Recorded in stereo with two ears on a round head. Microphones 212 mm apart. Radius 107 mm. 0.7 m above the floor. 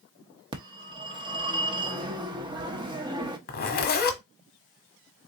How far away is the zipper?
About 1.2 m.